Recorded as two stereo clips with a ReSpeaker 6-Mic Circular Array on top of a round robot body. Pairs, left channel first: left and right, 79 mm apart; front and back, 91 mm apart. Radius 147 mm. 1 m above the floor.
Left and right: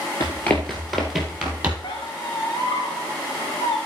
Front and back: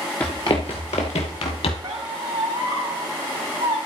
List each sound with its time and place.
0.2 s running footsteps: 65° left, 1.0 m; by 1.7 s 15° right, 1.6 m
1.8 s a squeak: 135° left, 1.0 m